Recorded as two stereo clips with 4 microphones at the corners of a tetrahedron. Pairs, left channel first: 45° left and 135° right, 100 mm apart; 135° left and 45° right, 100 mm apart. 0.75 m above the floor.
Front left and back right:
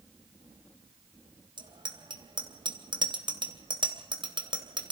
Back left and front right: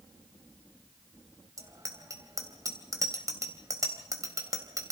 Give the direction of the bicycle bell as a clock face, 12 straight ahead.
3 o'clock.